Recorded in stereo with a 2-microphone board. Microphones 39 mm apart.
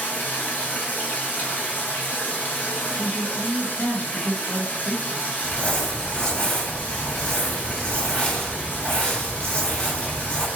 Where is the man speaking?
45° left (ahead or behind), 1.3 m.